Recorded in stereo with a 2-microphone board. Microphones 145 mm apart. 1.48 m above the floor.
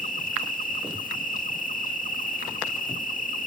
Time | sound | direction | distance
0.0 | an insect | 70° left (ahead or behind) | ?